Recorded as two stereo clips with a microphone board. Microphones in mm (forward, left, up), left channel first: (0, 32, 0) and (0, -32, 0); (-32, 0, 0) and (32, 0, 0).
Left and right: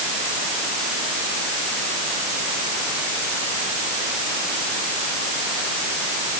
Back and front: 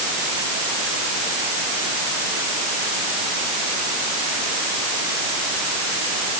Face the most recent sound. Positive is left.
No sound to turn to.